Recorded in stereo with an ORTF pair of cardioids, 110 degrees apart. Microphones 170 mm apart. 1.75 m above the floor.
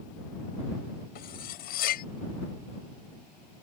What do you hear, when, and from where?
1.1 s cutlery clinking: 70° left